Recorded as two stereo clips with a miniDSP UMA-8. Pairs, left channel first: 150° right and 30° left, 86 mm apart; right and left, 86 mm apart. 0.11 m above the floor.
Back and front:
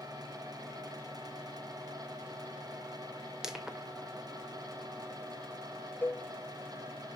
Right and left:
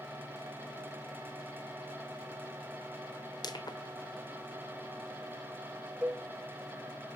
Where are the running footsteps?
No running footsteps in this recording.